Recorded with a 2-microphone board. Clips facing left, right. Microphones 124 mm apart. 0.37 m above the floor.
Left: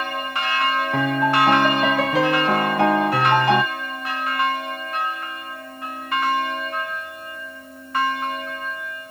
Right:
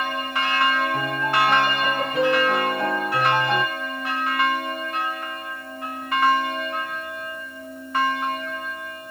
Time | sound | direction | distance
0.9 | a piano | 80° left | 0.6 m